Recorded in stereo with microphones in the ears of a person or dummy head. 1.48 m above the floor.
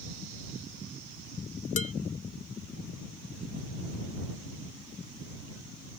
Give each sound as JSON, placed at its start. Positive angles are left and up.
{"t": 1.8, "sound": "dishes clattering", "side_deg": 35}